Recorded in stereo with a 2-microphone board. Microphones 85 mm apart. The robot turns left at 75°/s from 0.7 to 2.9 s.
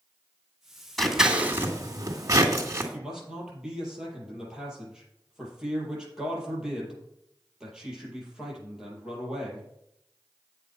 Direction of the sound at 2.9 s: 10° right (ahead or behind).